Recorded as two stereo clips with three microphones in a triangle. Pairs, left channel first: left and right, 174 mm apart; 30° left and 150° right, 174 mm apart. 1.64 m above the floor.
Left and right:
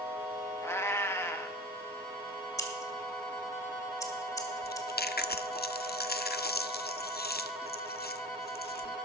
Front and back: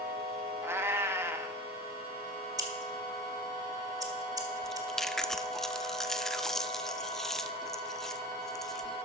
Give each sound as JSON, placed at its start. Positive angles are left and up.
{"t": 0.6, "sound": "a cat meowing", "azimuth_deg": 150, "distance_m": 1.1}
{"t": 2.6, "sound": "scissors", "azimuth_deg": 150, "distance_m": 1.8}
{"t": 4.6, "sound": "chewing", "azimuth_deg": 120, "distance_m": 0.6}